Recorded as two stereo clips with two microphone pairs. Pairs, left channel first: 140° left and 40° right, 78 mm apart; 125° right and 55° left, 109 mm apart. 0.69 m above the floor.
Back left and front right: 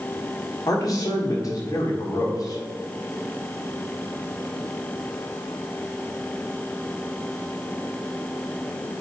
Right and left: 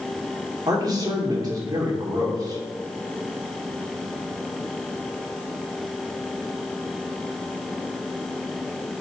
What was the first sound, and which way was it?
A man speaking, 105° left.